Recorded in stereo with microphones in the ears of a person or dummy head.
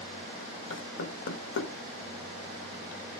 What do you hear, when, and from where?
0.7 s knocking: 75° left (ahead or behind), 1.1 m